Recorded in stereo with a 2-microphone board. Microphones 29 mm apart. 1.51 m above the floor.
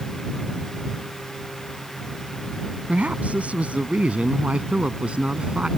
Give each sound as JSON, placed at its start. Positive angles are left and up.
{"t": 2.9, "sound": "a woman speaking", "side_deg": -55}